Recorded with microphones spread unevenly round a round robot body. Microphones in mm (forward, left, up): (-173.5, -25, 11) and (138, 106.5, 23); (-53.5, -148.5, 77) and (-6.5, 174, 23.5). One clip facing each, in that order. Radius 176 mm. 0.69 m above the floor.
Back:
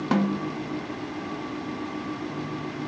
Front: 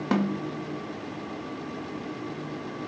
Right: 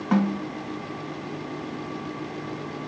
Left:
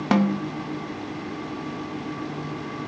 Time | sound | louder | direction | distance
0.1 | a snare drum | back 2 dB, left 2 dB | 115° left | 0.6 m